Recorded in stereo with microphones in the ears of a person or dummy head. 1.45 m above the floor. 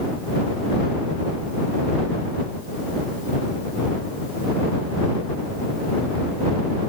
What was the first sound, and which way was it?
Only background noise.